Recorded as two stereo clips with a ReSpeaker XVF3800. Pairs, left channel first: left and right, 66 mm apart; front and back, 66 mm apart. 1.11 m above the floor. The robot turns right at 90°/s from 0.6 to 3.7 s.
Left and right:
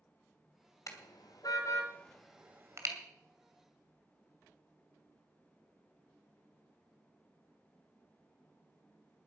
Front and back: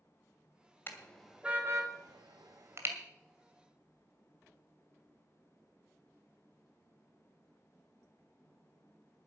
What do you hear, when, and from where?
0.9 s a car horn: 55° left, 2 m; by 3.0 s 120° right, 2 m